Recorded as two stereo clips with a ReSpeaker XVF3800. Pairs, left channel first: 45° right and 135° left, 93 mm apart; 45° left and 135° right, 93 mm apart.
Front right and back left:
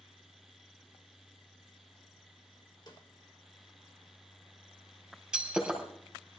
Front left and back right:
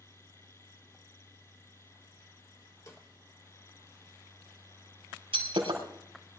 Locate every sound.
2.9 s a snare drum: 10° right, 2.5 m
5.3 s breaking glass: 140° right, 4.5 m